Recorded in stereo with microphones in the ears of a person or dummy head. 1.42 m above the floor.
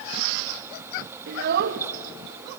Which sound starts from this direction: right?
A child speaking, at 1.3 s.